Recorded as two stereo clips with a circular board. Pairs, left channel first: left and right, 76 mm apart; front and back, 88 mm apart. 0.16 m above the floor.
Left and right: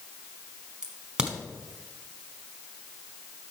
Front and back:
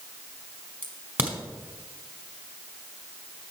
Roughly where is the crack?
Behind right.